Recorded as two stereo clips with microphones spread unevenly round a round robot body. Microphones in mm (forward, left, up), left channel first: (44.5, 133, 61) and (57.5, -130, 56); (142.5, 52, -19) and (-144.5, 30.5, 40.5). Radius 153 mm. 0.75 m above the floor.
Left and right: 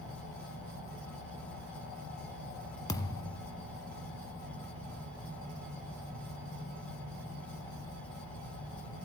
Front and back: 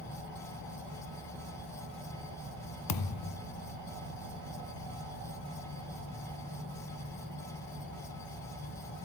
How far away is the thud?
About 1.3 m.